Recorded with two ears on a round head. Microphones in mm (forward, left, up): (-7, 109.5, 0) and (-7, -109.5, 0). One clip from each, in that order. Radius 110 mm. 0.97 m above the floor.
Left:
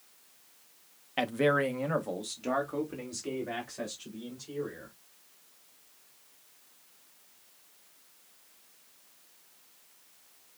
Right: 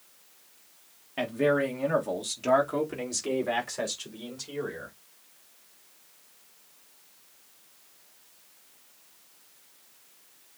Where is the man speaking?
40° left (ahead or behind), 1.0 m; by 4.9 s 45° right (ahead or behind), 3 m.